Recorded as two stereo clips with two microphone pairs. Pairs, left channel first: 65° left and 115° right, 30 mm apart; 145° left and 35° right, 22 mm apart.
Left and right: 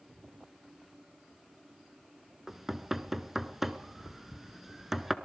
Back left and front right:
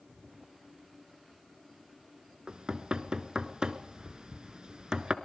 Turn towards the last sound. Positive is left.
turn(degrees=-40)